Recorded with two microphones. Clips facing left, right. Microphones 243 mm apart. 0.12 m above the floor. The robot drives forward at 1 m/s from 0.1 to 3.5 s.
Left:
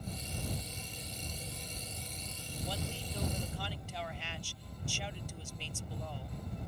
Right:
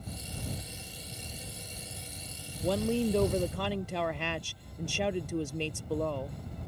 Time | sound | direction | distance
2.6 | a woman speaking | 60° right (ahead or behind) | ?